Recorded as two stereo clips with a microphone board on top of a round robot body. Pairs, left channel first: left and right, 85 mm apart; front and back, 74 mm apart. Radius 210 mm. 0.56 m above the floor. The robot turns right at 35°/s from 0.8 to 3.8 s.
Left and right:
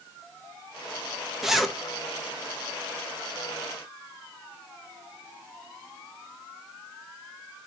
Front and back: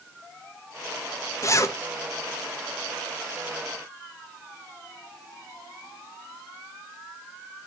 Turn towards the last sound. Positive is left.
turn(degrees=75)